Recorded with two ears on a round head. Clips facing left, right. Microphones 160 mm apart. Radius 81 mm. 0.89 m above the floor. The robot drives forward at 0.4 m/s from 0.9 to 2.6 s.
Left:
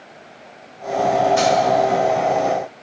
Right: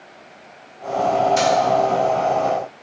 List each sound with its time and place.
1.4 s keys jangling: 40° right (ahead or behind), 1.9 m; by 1.5 s 45° right (ahead or behind), 1.8 m